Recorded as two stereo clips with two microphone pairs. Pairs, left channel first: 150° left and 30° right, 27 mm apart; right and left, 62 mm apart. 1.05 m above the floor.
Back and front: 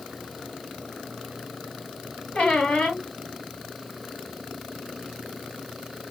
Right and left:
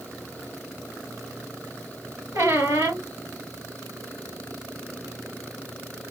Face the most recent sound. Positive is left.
turn(degrees=110)